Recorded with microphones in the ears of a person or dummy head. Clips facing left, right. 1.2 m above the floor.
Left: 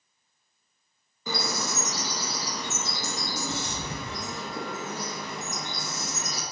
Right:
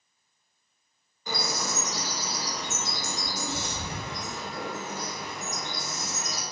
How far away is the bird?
About 0.8 m.